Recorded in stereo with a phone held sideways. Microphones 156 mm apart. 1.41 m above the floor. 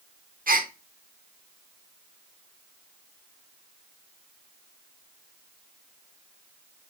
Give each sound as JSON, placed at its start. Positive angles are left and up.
{"t": 0.5, "sound": "a gasp", "side_deg": -70, "distance_m": 1.1}